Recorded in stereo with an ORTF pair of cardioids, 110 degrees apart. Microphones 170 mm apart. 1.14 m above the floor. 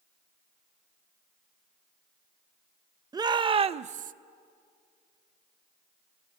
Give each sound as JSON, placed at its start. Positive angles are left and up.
{"t": 3.1, "sound": "a shout", "azimuth_deg": -25, "distance_m": 1.1}